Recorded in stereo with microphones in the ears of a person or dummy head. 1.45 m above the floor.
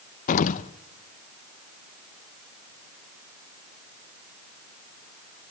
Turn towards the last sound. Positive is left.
turn(degrees=50)  # may be behind; listen again after turning